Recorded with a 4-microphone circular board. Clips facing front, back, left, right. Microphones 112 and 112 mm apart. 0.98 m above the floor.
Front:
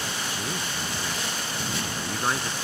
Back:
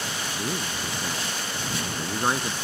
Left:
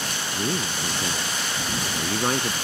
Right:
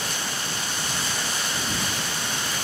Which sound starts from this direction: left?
A man speaking, at 0.3 s.